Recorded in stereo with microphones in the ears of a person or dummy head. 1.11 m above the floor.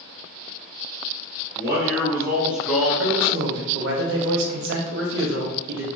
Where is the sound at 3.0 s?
70° right (ahead or behind), 0.8 m.